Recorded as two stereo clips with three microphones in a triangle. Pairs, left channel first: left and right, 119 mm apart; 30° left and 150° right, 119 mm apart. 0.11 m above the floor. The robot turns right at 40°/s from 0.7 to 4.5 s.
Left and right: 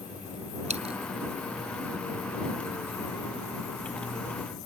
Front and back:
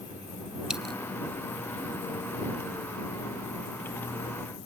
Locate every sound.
0.7 s a dropped coin: 65° right; by 0.9 s 55° right